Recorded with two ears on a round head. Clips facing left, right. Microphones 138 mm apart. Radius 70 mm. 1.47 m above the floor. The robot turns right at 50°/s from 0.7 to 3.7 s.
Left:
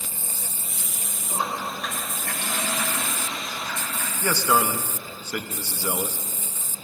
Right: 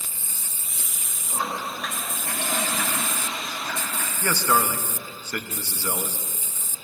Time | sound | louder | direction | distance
1.3 | a toilet flushing | left 1 dB | 150° left | 3.5 m
4.2 | a man speaking | left 1 dB | 10° left (ahead or behind) | 0.8 m